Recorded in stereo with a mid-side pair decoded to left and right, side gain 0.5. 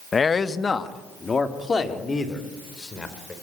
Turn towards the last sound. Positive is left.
turn(degrees=30)